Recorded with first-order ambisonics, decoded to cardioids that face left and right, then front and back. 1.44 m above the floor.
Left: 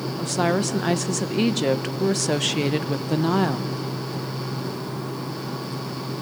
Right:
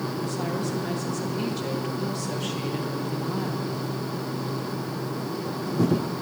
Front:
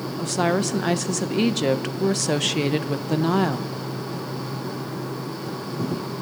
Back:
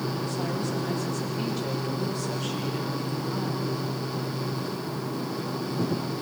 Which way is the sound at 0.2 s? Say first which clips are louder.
Left 11 dB, front 8 dB; 40° left.